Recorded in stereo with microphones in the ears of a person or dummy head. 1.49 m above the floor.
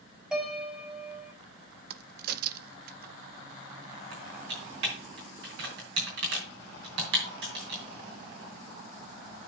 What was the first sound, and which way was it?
A piano, 5° right (ahead or behind).